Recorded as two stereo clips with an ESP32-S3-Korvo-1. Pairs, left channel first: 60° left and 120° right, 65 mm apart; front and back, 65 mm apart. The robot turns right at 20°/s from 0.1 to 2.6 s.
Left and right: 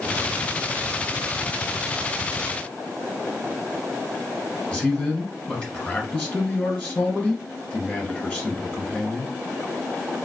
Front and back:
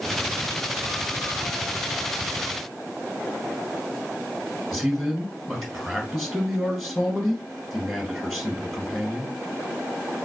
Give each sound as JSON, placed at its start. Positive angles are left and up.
{"t": 4.7, "sound": "a man speaking", "azimuth_deg": 90, "distance_m": 1.7}